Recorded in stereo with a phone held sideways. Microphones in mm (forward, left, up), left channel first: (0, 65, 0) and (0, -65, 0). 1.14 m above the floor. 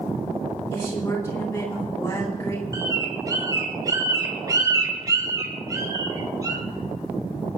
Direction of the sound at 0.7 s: 20° left (ahead or behind).